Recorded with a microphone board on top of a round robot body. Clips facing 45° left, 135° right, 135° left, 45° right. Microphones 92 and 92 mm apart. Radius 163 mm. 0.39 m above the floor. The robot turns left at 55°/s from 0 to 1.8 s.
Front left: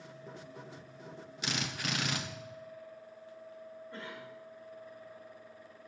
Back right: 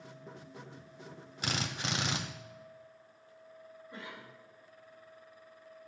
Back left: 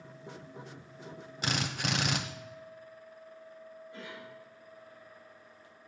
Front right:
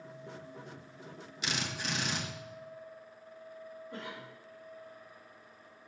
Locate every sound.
1.4 s a drill: straight behind, 1.2 m; by 2.2 s 160° left, 1.2 m
3.9 s a cough: 60° right, 4.5 m